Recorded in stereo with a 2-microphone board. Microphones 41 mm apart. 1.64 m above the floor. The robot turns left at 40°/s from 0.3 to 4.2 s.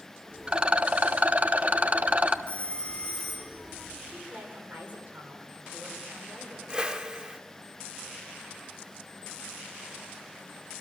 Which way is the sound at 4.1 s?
35° right (ahead or behind).